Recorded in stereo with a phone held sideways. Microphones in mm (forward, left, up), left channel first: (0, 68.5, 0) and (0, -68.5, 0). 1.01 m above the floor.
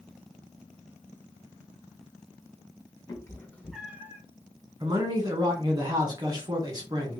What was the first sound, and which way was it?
A cat meowing, 25° left (ahead or behind).